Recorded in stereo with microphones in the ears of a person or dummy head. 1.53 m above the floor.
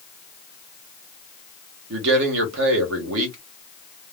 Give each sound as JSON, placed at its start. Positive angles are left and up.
{"t": 1.9, "sound": "a man speaking", "side_deg": -65, "distance_m": 1.0}